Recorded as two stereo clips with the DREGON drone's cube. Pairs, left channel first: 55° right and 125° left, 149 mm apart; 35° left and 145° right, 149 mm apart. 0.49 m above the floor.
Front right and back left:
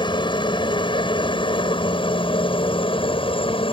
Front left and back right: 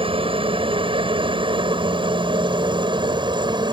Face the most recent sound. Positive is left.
turn(degrees=-95)